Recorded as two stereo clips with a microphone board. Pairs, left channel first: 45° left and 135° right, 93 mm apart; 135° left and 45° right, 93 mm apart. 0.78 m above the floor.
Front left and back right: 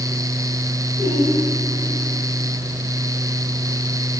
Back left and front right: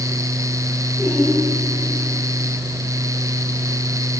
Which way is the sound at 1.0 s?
50° left.